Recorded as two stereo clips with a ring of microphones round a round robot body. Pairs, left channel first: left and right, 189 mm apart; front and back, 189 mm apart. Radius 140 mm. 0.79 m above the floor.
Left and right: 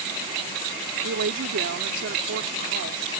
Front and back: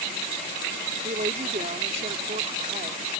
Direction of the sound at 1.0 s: 115° right.